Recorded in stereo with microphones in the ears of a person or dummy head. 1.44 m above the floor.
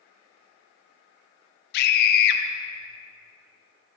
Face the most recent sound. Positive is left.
turn(degrees=60)  # may be behind; listen again after turning